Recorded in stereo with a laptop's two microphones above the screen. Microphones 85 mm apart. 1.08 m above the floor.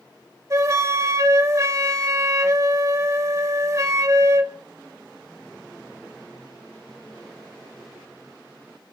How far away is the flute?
About 2.5 m.